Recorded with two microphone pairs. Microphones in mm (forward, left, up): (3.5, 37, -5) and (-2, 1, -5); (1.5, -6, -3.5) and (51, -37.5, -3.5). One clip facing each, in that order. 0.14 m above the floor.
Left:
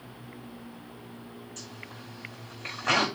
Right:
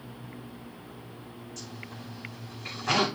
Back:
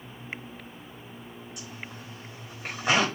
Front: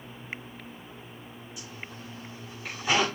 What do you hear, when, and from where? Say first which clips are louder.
1.6 s a zipper: right 1 dB, front 1 dB; 120° left, 5 m